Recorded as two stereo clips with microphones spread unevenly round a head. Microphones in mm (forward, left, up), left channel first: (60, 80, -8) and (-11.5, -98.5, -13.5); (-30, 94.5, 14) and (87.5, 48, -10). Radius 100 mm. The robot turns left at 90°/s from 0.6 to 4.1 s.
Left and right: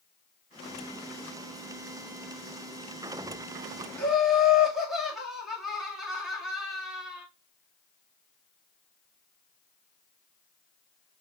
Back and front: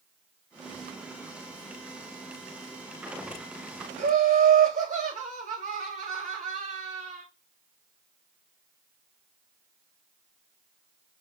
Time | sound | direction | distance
4.0 | laughter | 10° right | 1.9 m